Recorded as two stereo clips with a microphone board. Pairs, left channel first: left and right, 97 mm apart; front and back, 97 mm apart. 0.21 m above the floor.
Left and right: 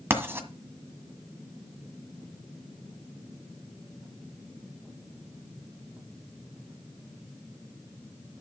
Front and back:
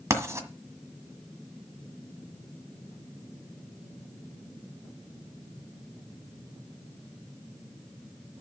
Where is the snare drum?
No snare drum in this recording.